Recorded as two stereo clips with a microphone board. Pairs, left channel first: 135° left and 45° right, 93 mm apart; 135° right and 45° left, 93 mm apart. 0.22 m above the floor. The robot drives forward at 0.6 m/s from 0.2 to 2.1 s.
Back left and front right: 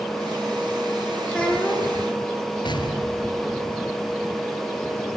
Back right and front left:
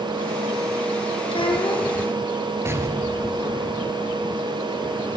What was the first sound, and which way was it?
A child speaking, 145° right.